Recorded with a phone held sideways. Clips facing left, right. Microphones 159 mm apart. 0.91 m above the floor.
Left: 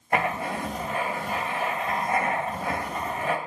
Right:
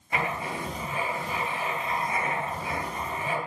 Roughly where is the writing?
Left.